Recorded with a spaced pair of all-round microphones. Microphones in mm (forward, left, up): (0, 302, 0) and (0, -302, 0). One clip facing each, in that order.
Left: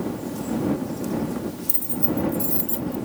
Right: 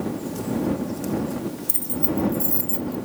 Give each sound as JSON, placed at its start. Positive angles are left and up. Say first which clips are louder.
{"t": 1.7, "sound": "keys jangling", "louder": "even", "side_deg": 65}